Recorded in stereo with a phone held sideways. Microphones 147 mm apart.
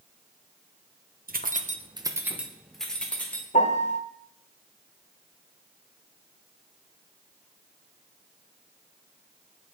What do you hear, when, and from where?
1.3 s keys jangling: 70° right (ahead or behind), 0.7 m; by 3.4 s 10° left (ahead or behind), 1.8 m
3.5 s a piano: 50° left (ahead or behind), 0.9 m